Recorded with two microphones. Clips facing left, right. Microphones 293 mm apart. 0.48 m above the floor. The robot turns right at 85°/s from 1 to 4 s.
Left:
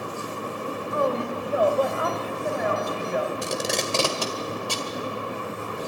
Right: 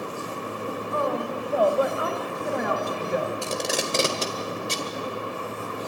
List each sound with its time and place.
0.9 s a woman speaking: 120° left, 2.5 m; by 3.3 s 40° right, 2.5 m
3.4 s tape being pulled: 20° left (ahead or behind), 1.9 m; by 4.9 s 25° right (ahead or behind), 1.9 m